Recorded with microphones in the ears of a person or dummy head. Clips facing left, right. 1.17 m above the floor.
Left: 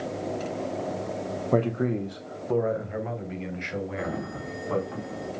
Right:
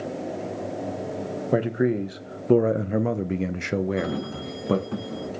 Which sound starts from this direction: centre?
A man speaking, at 1.5 s.